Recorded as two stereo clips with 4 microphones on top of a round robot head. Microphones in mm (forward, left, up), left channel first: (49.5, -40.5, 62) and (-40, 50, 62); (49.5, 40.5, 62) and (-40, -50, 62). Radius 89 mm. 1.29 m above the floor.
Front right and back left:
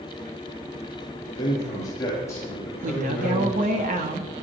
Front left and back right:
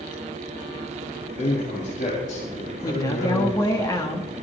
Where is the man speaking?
15° left, 8 m; by 3.8 s 40° left, 6.5 m.